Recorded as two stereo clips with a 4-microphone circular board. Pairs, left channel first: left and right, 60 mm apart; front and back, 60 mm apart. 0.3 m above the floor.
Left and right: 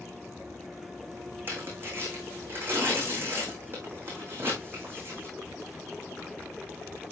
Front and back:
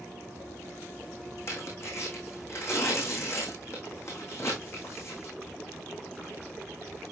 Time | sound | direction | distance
1.5 | tearing paper | 40° right | 4 m